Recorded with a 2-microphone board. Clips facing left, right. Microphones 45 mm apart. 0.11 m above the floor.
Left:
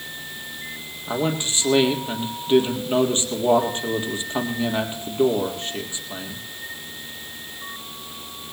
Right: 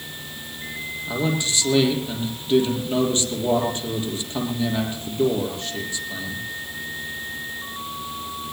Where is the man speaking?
30° left (ahead or behind), 3.5 m.